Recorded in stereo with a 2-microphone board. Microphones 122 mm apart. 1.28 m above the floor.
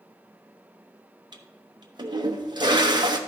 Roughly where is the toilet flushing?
Right.